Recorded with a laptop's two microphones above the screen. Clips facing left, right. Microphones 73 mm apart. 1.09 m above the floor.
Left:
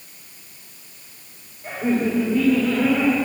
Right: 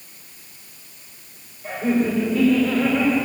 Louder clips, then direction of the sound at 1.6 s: Right 1 dB; 25° left (ahead or behind).